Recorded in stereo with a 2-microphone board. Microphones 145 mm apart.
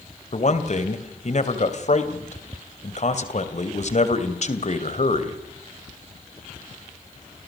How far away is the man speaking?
About 2.5 m.